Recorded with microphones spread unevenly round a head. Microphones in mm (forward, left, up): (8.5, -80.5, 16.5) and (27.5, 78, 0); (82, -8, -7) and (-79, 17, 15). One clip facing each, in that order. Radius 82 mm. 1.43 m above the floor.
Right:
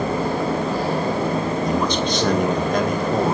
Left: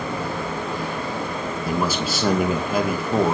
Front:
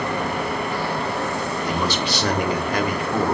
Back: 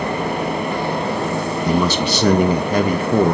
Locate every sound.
1.6 s a man speaking: 165° left, 2 m